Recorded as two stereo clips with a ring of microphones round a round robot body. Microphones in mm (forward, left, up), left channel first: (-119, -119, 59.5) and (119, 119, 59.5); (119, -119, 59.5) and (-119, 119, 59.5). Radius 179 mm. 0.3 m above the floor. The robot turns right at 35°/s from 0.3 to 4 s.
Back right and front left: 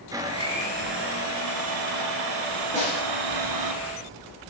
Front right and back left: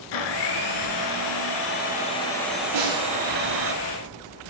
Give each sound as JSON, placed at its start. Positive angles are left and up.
{"t": 0.1, "sound": "a blender", "azimuth_deg": -35, "distance_m": 1.2}
{"t": 2.7, "sound": "a snare drum", "azimuth_deg": 115, "distance_m": 6.0}